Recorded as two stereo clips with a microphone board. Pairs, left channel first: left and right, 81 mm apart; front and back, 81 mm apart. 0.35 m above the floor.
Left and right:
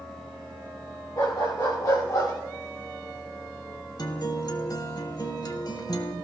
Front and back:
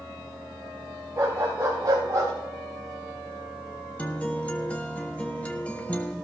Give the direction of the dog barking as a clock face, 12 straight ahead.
8 o'clock.